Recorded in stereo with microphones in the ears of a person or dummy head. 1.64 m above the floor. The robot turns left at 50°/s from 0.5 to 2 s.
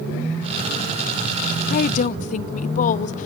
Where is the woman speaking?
50° left (ahead or behind), 0.7 m; by 3.3 s 45° left (ahead or behind), 0.7 m.